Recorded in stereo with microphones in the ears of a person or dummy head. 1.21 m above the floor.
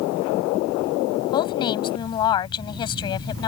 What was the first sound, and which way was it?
A woman speaking, 25° left (ahead or behind).